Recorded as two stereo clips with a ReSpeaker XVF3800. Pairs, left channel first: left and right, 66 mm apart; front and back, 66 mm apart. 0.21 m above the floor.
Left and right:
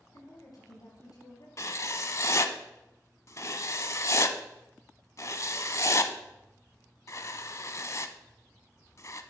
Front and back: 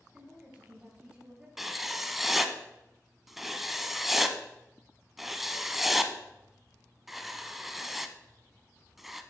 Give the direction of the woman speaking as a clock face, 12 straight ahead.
8 o'clock.